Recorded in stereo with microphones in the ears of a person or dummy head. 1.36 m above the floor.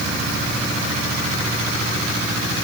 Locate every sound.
Only background noise.